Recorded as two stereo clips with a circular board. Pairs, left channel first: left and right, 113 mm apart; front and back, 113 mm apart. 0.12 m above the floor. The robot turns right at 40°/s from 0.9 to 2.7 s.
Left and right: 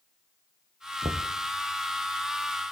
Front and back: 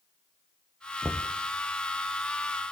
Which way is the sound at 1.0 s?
105° right.